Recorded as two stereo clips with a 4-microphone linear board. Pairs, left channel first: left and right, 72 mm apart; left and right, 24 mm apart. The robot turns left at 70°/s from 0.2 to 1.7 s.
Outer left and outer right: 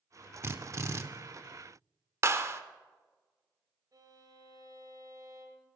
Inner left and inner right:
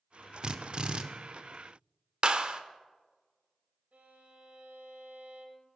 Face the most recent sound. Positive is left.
turn(degrees=-60)  # may be behind; listen again after turning